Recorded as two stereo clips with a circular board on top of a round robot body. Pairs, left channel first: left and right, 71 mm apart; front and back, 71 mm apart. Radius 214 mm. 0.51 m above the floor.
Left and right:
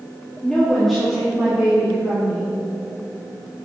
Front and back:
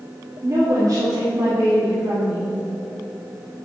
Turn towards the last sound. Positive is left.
turn(degrees=-155)